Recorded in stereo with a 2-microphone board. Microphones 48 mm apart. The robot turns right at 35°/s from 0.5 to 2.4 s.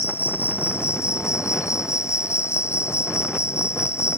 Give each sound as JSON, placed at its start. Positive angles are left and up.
{"t": 0.0, "sound": "an insect", "azimuth_deg": 50}